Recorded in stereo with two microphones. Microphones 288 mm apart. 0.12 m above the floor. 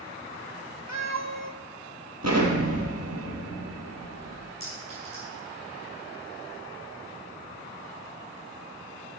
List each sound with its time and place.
0.9 s a cat meowing: 80° right, 1.0 m
2.2 s an explosion: 65° right (ahead or behind), 2.5 m
4.6 s a clink: 35° right (ahead or behind), 5.5 m